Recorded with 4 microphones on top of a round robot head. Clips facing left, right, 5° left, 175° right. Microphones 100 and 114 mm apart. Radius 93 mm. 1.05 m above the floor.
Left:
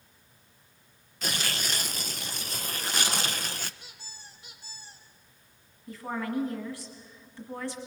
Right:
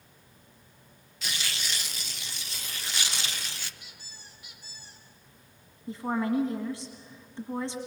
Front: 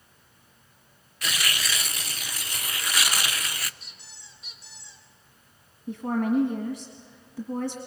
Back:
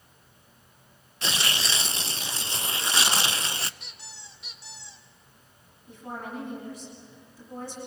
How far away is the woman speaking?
About 1.7 m.